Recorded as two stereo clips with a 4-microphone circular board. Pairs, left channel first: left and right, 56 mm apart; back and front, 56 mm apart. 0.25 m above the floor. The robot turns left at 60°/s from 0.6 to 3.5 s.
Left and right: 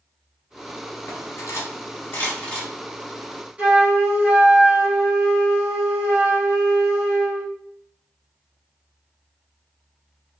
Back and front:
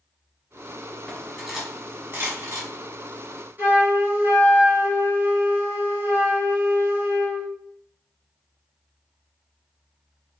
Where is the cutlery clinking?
110° left, 1.0 m; by 2.7 s 15° left, 1.0 m.